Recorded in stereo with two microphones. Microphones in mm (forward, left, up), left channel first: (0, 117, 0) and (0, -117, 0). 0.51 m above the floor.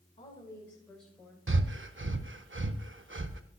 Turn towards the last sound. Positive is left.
turn(degrees=-55)  # may be behind; listen again after turning